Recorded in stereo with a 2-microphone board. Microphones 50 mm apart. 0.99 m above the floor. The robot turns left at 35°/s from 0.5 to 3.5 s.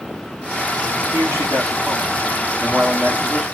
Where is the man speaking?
70° right, 1.9 m; by 3.4 s 155° right, 1.9 m.